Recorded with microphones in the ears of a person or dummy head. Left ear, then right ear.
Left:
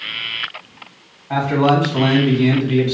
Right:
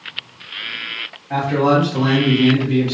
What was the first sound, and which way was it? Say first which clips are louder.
A man speaking: even; 40° left (ahead or behind).